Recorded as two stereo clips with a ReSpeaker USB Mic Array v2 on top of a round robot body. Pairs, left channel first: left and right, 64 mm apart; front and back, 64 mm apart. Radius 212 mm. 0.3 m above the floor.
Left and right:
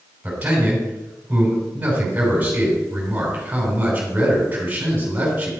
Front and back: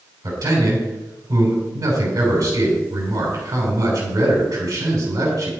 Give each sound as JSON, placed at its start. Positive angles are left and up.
{"t": 0.2, "sound": "a man speaking", "azimuth_deg": -155, "distance_m": 5.5}